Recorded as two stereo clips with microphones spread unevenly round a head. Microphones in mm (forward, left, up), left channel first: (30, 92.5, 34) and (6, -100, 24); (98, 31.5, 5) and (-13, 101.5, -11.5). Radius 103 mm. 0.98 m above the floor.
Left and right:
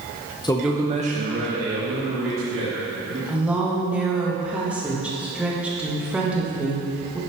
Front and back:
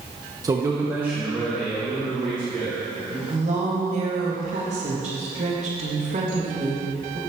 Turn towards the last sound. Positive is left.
turn(degrees=180)